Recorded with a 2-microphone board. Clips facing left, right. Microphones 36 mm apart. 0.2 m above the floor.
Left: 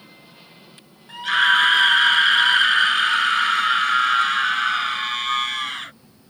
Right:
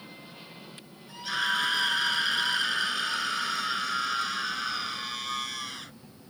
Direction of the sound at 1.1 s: 55° left (ahead or behind).